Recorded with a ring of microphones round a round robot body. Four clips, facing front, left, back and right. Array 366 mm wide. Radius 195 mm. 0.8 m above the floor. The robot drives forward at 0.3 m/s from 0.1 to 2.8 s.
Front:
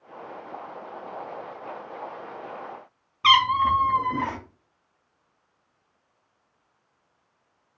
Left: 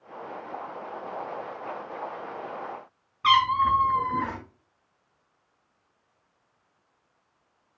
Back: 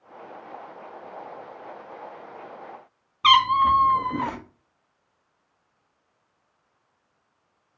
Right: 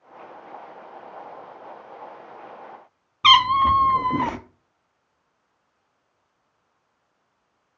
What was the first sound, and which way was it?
A cat meowing, 95° right.